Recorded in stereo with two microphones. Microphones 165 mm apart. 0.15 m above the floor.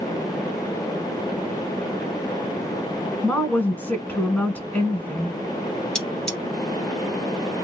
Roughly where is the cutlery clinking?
Centre.